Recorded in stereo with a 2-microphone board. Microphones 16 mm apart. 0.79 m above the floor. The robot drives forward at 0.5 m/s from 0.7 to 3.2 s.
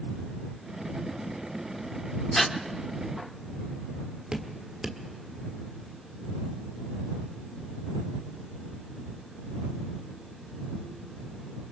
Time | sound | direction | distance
2.4 | breathing | 20° left (ahead or behind) | 0.9 m
4.3 | dripping | 20° right (ahead or behind) | 1.5 m